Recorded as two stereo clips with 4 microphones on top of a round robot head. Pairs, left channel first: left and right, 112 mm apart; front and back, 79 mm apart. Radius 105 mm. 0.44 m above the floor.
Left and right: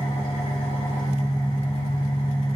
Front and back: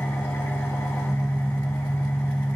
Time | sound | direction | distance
0.0 | an engine running | 55° left | 3 m